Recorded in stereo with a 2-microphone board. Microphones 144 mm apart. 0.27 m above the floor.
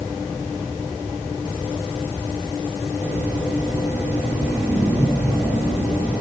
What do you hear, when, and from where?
Only background noise.